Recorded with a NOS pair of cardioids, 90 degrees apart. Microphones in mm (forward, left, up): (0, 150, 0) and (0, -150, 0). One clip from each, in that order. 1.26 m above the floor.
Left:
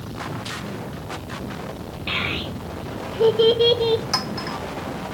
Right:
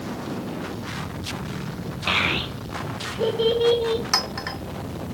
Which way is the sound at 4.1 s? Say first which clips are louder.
Right 1 dB; 20° right.